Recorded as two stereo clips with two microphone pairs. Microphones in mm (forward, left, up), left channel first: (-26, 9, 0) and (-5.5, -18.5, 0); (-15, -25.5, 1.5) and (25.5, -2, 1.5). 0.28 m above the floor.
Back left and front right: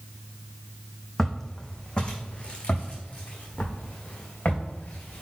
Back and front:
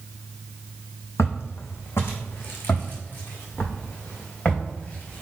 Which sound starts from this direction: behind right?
Footsteps, at 1.2 s.